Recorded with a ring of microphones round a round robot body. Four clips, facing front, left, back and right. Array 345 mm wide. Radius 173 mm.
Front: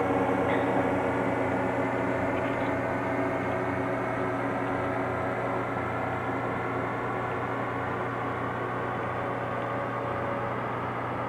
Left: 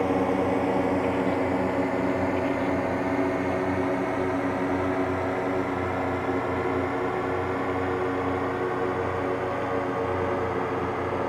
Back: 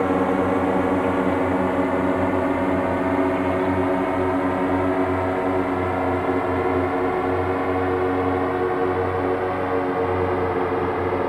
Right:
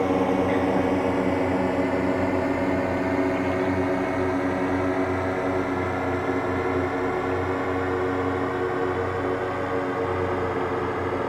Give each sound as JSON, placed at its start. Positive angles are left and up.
{"t": 0.0, "sound": "a drone", "azimuth_deg": -165}